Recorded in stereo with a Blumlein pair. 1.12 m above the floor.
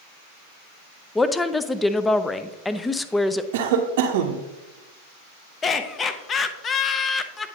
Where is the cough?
55° right, 0.7 m.